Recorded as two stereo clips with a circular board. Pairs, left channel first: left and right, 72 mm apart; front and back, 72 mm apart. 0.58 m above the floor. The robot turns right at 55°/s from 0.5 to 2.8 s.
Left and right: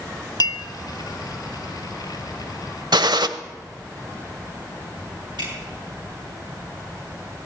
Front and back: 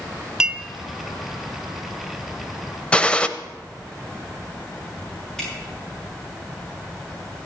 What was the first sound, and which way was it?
A clink, 100° left.